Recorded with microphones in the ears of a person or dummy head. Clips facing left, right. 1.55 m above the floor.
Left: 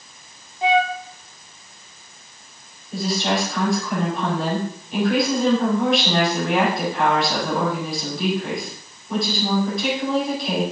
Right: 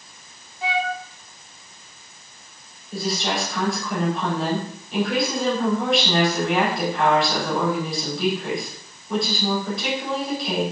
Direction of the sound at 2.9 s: Centre (ahead or behind).